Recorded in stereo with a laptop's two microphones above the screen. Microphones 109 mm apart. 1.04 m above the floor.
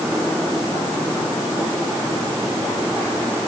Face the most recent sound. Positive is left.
No sound to turn to.